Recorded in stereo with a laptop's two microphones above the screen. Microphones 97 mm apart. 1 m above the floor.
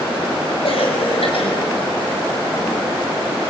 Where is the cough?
70° left (ahead or behind), 6.5 m.